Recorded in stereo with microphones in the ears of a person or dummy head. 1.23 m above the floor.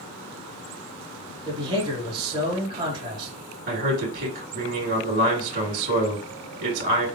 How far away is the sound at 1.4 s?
About 2 m.